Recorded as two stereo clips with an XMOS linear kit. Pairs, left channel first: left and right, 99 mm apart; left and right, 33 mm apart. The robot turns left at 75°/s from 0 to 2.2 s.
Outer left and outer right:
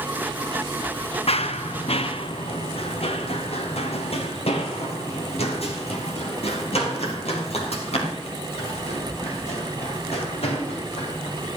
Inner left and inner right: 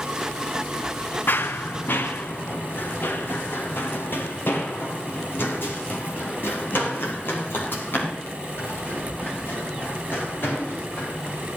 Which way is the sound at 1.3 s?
80° left.